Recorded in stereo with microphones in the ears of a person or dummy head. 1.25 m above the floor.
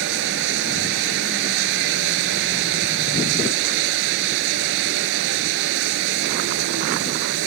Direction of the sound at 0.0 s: 70° right (ahead or behind).